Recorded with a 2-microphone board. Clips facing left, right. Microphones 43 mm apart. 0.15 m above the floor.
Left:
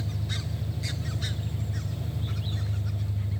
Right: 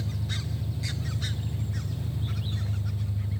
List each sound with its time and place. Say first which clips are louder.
0.0 s an engine running: even; 15° right (ahead or behind), 1.7 m